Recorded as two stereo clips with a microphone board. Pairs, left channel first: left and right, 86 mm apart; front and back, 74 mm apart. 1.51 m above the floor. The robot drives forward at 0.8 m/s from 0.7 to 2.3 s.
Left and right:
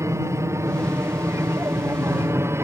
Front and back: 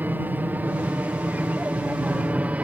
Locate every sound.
0.0 s an aircraft: 130° right; by 2.6 s 125° right